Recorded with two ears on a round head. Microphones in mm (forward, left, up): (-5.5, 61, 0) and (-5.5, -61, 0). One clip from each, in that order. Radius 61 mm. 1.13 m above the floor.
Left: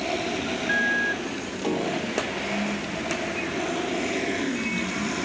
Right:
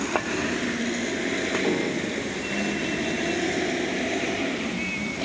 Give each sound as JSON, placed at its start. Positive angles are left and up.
{"t": 1.6, "sound": "a piano", "side_deg": 30}